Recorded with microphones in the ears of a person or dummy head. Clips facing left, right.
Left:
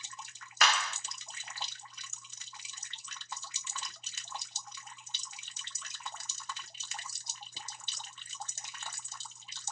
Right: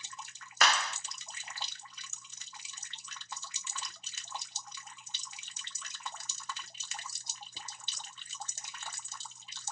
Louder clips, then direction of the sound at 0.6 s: Right 1 dB; 45° right (ahead or behind).